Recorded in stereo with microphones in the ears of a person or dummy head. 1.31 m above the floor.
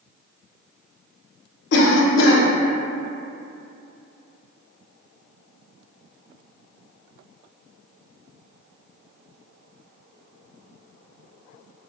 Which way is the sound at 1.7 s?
70° left (ahead or behind).